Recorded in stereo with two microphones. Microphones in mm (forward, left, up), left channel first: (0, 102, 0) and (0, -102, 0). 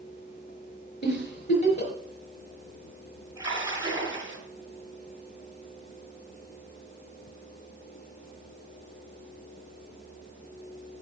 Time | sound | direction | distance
1.0 | a giggle | 60° left (ahead or behind) | 4 m
3.4 | a splash | 20° right (ahead or behind) | 6 m